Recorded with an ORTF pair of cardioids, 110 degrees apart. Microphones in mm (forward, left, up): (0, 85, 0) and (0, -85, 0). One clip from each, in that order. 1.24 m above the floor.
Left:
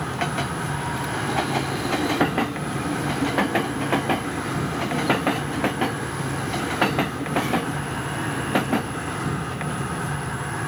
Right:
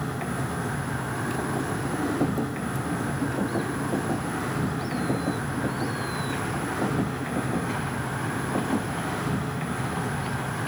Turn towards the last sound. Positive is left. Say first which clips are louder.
# left 5 dB
turn(degrees=55)